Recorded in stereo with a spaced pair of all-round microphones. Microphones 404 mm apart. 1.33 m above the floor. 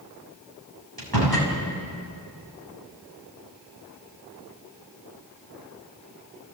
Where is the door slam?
60° right (ahead or behind), 5.5 m.